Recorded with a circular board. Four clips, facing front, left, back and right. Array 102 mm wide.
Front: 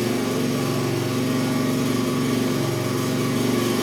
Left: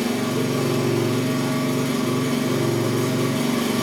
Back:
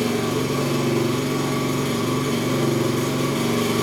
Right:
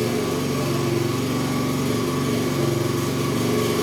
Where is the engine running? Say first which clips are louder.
Even, even; 165° left, 1.0 m.